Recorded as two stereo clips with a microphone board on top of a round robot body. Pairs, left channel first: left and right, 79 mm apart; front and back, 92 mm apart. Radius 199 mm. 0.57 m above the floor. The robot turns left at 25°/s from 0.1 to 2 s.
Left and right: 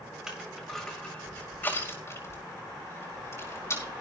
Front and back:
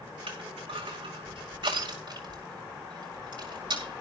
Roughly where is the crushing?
Behind.